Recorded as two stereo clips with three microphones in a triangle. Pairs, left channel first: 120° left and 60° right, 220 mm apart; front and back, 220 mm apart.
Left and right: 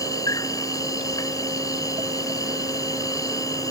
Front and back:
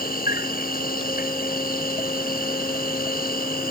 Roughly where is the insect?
Ahead left.